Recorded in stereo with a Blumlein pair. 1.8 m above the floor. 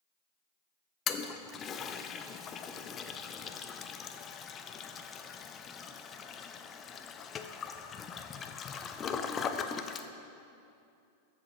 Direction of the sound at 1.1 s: 25° left.